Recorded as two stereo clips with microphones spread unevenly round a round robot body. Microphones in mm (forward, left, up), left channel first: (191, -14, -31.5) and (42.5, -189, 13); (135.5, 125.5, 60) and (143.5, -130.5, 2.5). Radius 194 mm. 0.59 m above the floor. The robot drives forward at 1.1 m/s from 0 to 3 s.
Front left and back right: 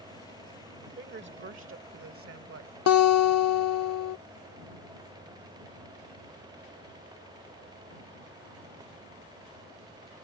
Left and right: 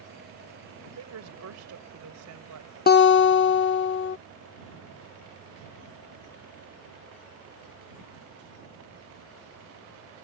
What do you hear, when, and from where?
1.0 s a woman speaking: 85° right; by 2.7 s 120° right
2.9 s a guitar: 30° left; by 4.2 s 40° left